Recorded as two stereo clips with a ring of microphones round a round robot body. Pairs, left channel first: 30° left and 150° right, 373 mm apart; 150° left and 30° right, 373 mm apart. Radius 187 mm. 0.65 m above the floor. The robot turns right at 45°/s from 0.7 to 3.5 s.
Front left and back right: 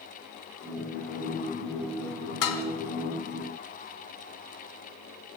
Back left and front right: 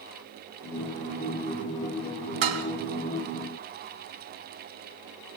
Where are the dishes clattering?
10° right, 3.5 m; by 2.6 s straight ahead, 3.5 m.